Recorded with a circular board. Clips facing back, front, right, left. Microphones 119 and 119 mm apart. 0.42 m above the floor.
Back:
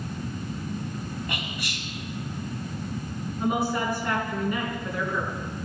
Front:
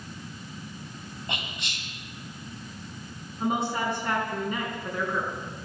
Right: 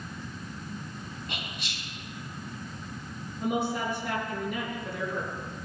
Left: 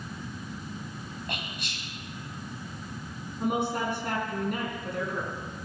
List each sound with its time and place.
1.3 s whispering: 65° left, 3.5 m
3.4 s a woman speaking: 65° left, 4.5 m